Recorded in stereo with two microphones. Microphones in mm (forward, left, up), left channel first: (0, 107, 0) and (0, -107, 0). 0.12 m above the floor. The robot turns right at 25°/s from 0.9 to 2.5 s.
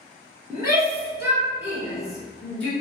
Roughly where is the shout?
Centre.